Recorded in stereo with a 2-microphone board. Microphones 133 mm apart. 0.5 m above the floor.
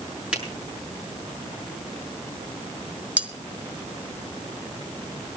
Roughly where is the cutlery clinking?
Centre.